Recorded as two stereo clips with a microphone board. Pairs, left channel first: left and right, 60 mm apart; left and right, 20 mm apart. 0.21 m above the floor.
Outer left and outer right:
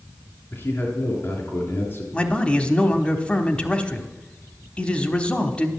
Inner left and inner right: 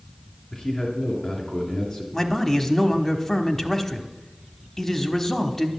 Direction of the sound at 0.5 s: 35° left (ahead or behind).